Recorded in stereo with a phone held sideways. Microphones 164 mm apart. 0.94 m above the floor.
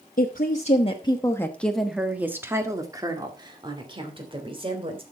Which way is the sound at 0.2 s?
65° left (ahead or behind).